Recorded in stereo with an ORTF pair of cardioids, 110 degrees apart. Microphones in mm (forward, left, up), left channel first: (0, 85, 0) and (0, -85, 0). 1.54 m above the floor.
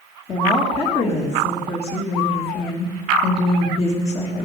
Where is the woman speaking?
35° left, 2.5 m.